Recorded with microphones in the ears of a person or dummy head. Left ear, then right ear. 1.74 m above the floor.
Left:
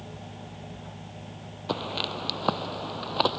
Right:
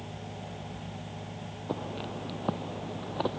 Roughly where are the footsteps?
Left.